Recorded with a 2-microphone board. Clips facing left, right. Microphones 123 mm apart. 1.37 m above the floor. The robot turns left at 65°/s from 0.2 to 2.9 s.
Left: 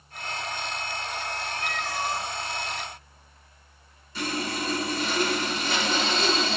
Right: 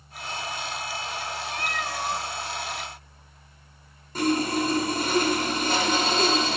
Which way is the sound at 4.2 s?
50° right (ahead or behind).